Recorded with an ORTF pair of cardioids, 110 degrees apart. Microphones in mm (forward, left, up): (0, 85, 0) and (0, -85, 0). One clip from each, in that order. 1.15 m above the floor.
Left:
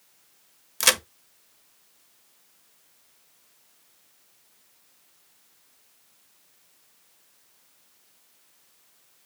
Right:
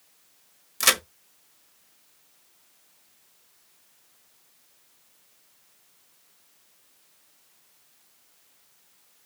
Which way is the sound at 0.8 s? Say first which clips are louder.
Even; 10° left.